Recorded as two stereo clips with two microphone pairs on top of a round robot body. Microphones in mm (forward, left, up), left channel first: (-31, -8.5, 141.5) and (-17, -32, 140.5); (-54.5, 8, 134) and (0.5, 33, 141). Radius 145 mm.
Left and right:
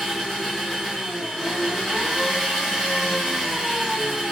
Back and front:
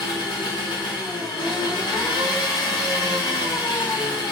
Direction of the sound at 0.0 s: 145° right.